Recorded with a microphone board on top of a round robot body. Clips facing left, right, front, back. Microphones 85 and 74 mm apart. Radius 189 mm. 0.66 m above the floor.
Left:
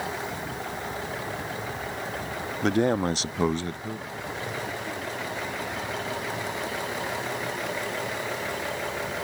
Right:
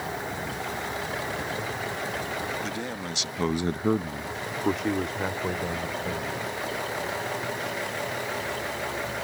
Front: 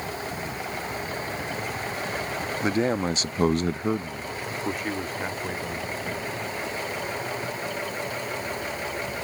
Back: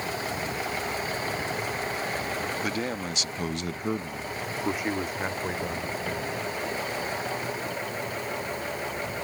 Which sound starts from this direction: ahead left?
A man speaking, at 2.6 s.